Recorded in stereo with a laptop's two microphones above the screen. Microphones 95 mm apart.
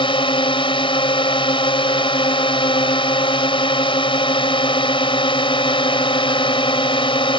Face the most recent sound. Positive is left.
turn(degrees=70)  # may be behind; listen again after turning